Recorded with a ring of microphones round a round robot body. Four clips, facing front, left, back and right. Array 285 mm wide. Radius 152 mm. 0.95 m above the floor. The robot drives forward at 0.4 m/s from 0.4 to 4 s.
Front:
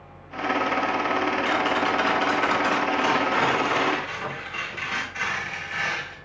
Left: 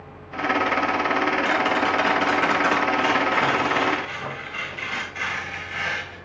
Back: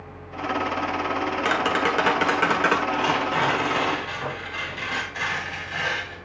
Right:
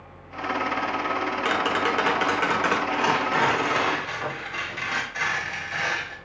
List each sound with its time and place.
1.4 s tapping: 155° right, 1.4 m; by 2.8 s 160° right, 1.9 m
2.9 s tearing paper: 120° right, 2 m; by 6.2 s 130° right, 2.5 m